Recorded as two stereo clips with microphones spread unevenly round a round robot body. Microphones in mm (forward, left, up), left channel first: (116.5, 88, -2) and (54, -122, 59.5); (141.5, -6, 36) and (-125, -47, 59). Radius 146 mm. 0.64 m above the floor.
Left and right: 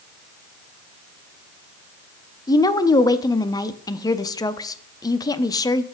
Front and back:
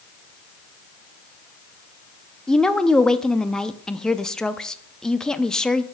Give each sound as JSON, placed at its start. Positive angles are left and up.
{"t": 2.5, "sound": "a woman speaking", "azimuth_deg": 85, "distance_m": 0.6}